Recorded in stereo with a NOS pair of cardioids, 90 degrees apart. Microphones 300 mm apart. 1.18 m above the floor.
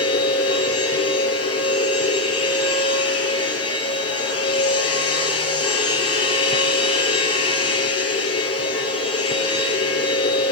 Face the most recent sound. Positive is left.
turn(degrees=50)